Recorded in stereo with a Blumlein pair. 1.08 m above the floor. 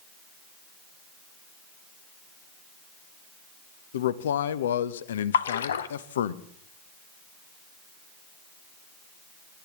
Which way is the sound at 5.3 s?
65° left.